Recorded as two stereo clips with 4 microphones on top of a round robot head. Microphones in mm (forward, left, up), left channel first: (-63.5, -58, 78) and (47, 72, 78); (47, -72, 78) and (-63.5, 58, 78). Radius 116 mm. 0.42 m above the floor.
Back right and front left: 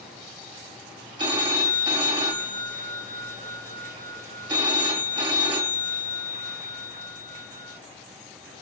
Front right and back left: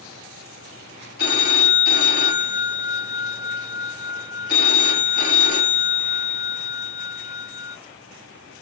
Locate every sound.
1.2 s a phone ringing: 15° right, 1.7 m